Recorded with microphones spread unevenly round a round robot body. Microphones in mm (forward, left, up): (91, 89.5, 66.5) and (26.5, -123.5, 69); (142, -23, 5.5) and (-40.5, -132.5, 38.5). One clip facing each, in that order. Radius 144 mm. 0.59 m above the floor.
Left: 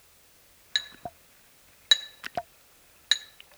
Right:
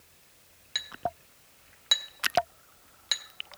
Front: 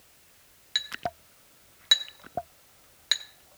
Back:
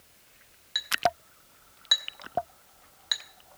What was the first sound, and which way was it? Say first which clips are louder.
A clink: right 7 dB, back 7 dB; 10° left.